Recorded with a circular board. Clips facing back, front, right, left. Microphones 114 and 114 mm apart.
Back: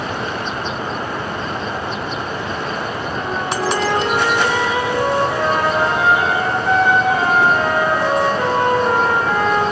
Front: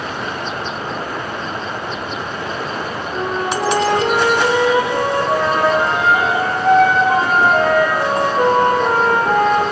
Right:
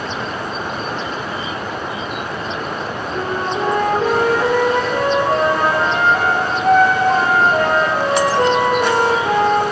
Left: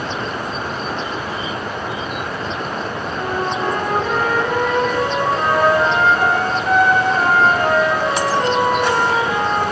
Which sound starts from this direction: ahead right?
A flute, at 3.1 s.